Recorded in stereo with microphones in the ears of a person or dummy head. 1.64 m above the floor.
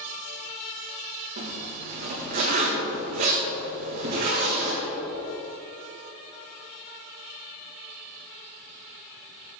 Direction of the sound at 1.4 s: 45° right (ahead or behind).